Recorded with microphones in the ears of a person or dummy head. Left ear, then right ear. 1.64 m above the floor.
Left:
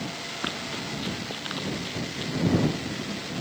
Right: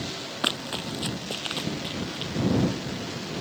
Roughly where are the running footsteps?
Right.